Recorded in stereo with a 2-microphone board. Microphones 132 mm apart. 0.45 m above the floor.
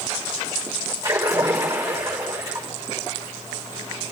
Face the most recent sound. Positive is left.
turn(degrees=-25)  # may be behind; listen again after turning